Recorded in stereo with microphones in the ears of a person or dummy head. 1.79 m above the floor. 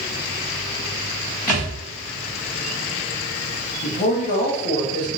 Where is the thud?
5° left (ahead or behind), 1.6 m.